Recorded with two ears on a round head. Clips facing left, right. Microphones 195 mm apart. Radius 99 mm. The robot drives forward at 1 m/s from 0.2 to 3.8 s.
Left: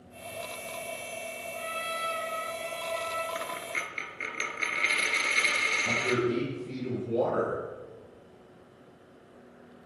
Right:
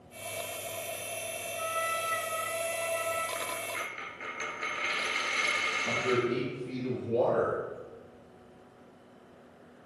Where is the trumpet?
60° left (ahead or behind), 2.5 m.